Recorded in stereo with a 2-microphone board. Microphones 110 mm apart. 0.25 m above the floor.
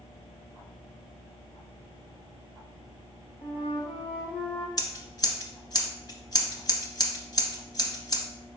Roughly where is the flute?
Left.